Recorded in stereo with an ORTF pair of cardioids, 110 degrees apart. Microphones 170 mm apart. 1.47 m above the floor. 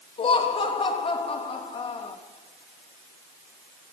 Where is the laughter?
35° left, 2.5 m.